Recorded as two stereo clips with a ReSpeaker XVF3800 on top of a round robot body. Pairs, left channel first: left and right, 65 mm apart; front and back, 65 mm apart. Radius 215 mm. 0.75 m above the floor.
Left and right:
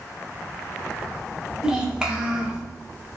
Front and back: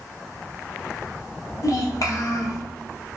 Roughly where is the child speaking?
Ahead.